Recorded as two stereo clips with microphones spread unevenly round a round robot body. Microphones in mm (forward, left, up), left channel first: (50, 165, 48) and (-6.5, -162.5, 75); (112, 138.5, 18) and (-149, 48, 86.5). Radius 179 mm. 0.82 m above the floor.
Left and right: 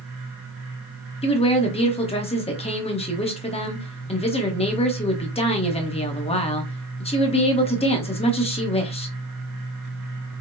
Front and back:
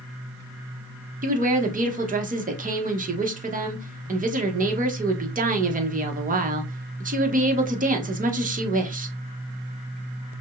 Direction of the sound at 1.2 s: 135° left.